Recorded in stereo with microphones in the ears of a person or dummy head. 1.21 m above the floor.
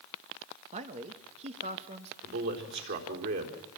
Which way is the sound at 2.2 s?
65° right (ahead or behind).